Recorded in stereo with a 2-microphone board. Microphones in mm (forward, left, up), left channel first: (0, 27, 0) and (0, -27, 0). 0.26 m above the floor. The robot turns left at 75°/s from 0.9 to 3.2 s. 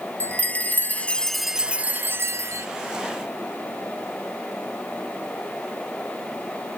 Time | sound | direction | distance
0.2 | a chime | 40° left | 0.6 m